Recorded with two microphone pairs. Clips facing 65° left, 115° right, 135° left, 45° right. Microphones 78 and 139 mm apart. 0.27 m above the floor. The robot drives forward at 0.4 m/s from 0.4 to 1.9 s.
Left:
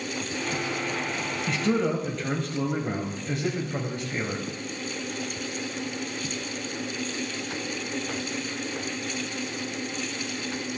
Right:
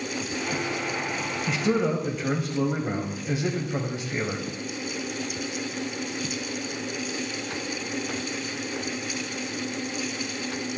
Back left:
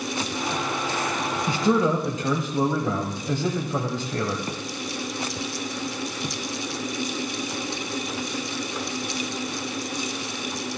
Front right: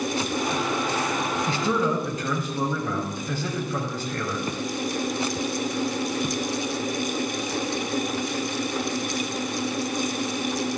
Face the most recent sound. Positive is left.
turn(degrees=170)